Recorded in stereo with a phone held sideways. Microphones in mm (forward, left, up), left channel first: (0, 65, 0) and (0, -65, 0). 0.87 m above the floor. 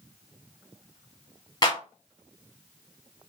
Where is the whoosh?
No whoosh in this recording.